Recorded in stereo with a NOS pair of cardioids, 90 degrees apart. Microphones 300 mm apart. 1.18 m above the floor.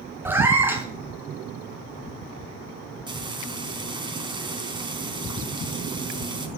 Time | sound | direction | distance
0.2 | a cat meowing | 5° right | 3.5 m
3.1 | frying | 15° right | 4 m